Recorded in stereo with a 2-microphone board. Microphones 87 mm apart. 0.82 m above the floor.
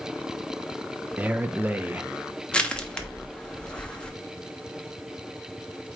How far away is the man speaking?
About 0.5 m.